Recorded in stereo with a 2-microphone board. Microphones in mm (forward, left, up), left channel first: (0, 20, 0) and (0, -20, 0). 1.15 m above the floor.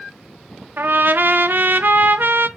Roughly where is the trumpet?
Right.